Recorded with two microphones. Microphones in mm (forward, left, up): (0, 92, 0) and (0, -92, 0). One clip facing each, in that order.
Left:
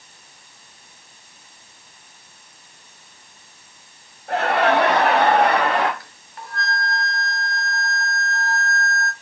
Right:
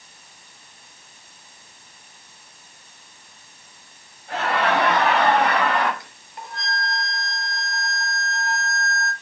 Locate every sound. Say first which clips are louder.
4.3 s laughter: left 4 dB; 65° left (ahead or behind), 4.5 m; by 5.9 s 75° left (ahead or behind), 2.5 m
6.0 s a flute: even; 20° right (ahead or behind), 1.5 m